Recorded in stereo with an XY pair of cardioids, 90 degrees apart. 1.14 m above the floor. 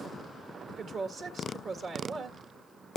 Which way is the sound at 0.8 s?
70° right.